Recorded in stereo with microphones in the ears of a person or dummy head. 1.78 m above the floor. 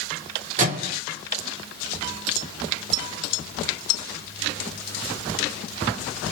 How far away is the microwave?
About 1.2 m.